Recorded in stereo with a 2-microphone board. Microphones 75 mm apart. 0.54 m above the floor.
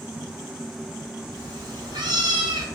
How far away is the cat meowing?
About 2.5 m.